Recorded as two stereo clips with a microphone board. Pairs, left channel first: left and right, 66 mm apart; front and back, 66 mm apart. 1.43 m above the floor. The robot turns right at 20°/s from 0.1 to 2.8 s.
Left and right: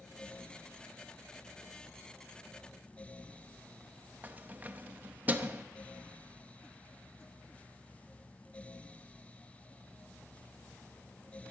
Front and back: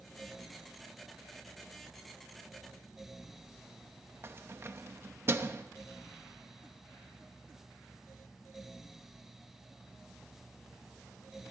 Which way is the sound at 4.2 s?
145° right.